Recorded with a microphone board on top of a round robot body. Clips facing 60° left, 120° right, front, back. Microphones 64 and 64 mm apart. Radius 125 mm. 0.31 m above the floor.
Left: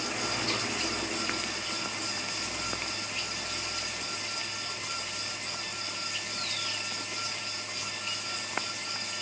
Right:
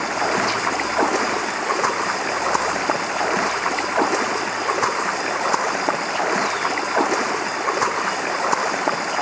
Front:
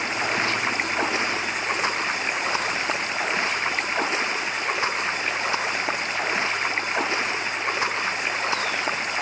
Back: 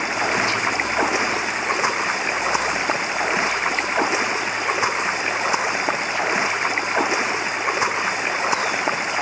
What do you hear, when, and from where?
0.0 s running water: 110° right